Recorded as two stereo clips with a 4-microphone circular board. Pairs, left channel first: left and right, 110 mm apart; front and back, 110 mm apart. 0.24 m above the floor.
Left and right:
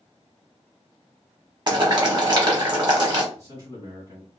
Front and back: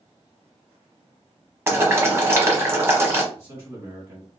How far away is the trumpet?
I don't hear a trumpet.